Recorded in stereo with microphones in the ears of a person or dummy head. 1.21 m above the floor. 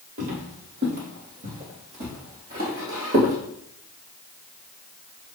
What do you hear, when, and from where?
0.2 s footsteps: 45° right (ahead or behind), 1.7 m; by 3.4 s 40° right (ahead or behind), 2 m